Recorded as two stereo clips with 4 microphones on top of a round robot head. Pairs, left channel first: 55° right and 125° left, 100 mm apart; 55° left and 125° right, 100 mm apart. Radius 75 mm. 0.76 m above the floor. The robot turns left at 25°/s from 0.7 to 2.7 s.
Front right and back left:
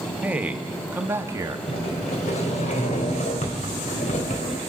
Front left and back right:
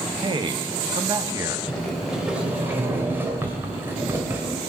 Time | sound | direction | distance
0.2 | a man speaking | 160° right | 1.3 m
1.7 | a sliding door | 30° right | 2.5 m